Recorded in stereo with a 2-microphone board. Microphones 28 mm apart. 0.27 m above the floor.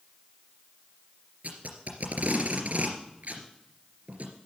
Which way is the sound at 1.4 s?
65° right (ahead or behind).